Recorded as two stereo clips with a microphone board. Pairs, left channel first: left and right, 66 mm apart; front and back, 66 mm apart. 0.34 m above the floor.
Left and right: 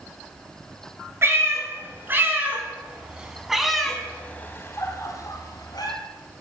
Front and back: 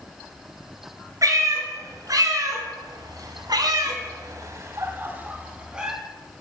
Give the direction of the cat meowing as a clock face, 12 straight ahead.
5 o'clock.